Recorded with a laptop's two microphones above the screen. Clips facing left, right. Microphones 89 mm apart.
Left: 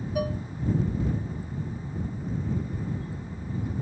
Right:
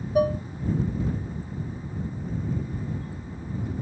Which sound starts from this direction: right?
Dishes clattering, at 0.1 s.